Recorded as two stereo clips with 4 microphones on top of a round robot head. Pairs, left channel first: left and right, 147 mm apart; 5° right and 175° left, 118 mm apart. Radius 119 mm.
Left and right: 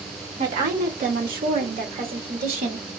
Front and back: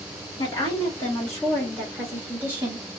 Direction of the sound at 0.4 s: 55° right.